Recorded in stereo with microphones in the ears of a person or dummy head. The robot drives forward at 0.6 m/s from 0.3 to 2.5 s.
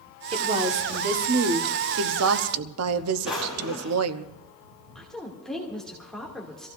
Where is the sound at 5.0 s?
Centre (ahead or behind), 2 m.